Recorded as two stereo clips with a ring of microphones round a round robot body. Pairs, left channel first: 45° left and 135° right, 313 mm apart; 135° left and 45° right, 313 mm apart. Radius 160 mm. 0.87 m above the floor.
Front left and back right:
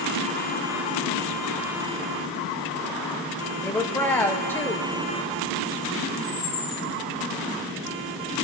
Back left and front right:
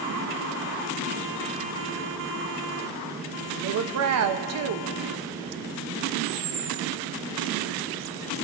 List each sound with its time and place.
3.5 s a woman speaking: 35° right, 1.1 m
6.2 s a camera shutter: straight ahead, 1.5 m